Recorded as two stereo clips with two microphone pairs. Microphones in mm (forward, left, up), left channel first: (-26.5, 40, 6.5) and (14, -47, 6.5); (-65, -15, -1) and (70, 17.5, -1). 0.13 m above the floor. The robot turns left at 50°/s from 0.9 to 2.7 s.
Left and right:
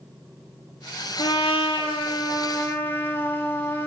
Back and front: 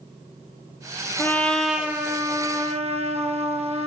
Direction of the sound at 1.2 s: 125° left.